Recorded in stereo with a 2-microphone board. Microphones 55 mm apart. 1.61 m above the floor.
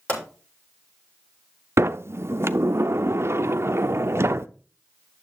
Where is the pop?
30° left (ahead or behind), 5.5 m.